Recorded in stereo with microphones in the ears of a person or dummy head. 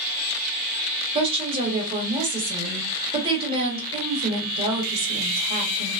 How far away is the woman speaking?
About 1.5 m.